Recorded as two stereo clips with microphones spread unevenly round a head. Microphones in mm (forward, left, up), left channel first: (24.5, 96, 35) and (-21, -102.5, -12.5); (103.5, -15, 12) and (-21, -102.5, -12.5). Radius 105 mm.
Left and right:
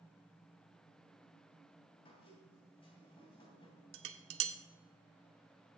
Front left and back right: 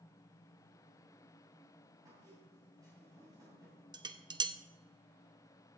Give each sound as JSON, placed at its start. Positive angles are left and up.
{"t": 2.0, "sound": "a squeak", "azimuth_deg": 140, "distance_m": 3.0}
{"t": 3.9, "sound": "dishes clattering", "azimuth_deg": -80, "distance_m": 0.8}